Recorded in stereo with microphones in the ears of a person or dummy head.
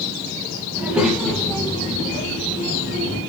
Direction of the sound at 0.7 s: 10° right (ahead or behind).